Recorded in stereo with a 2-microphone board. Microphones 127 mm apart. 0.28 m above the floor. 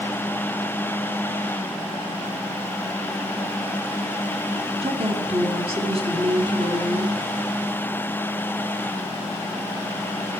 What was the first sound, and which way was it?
A woman speaking, 50° right (ahead or behind).